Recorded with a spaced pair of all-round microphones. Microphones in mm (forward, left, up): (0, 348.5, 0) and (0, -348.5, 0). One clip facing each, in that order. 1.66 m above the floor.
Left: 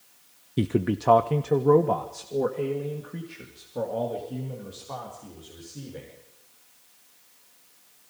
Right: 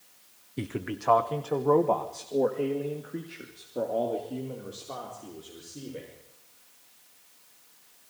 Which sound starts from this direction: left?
A man speaking, at 0.6 s.